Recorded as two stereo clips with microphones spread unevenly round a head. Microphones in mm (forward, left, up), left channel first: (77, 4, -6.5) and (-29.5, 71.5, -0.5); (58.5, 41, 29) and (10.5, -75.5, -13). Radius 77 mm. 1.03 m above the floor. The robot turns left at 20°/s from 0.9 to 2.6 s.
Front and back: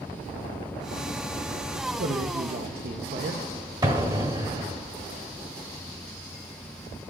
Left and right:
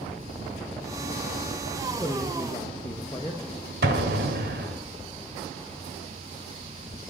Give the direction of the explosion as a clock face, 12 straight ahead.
5 o'clock.